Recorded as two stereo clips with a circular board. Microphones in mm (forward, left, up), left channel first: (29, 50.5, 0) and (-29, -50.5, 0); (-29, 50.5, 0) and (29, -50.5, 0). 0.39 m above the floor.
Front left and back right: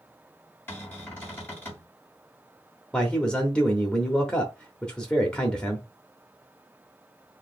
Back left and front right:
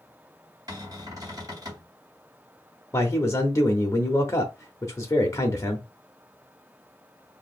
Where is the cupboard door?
10° right, 2.5 m.